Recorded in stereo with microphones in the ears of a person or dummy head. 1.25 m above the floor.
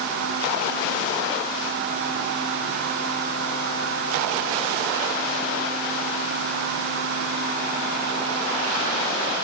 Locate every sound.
Only background noise.